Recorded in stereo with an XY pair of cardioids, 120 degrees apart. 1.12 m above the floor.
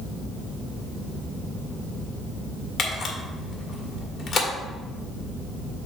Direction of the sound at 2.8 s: 50° left.